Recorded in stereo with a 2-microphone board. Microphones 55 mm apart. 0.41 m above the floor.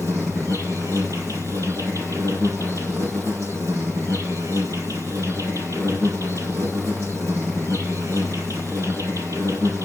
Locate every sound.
0.0 s an insect: 70° right (ahead or behind), 6.5 m